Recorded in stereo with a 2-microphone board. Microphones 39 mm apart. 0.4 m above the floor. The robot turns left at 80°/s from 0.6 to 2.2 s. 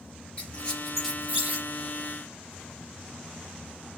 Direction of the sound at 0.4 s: 25° left (ahead or behind).